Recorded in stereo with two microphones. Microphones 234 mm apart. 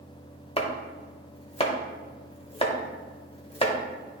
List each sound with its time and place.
0.6 s chopping: 25° left (ahead or behind), 0.8 m